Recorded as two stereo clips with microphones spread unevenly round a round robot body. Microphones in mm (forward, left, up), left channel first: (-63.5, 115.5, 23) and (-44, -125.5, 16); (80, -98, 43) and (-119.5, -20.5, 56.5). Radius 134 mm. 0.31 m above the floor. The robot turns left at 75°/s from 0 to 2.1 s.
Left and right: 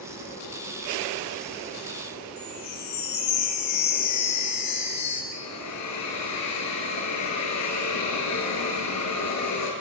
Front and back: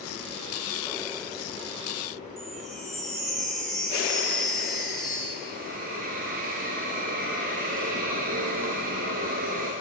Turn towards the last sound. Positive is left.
turn(degrees=105)